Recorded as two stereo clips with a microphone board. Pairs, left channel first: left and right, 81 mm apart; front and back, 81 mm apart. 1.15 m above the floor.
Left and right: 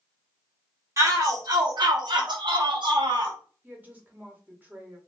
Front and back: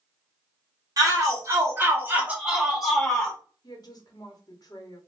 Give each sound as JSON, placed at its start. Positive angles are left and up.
{"t": 1.0, "sound": "a shout", "azimuth_deg": -135, "distance_m": 1.4}
{"t": 3.6, "sound": "a woman speaking", "azimuth_deg": -25, "distance_m": 1.1}